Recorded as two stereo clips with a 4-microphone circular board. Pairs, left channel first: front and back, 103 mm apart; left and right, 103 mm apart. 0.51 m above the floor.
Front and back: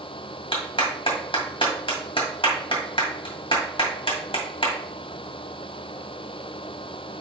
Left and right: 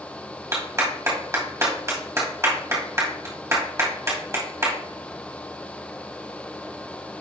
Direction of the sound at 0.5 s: 30° right.